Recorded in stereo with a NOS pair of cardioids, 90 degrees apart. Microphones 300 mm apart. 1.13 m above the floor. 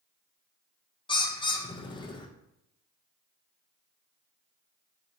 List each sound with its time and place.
1.1 s a bird: 15° left, 0.6 m